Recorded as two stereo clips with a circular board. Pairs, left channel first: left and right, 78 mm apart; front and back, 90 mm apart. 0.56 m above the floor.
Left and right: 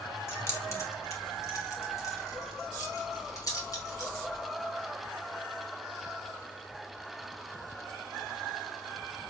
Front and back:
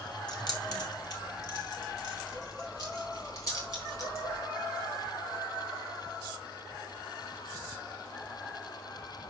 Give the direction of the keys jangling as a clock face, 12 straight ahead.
11 o'clock.